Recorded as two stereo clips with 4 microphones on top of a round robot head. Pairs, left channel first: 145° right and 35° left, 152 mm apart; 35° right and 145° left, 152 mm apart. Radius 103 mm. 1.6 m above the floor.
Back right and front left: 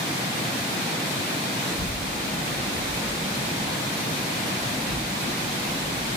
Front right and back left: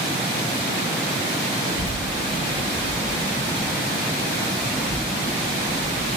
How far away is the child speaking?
About 1.5 m.